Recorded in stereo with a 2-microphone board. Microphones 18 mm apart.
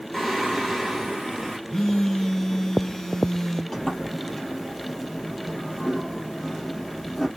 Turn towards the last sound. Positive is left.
turn(degrees=30)  # may be behind; listen again after turning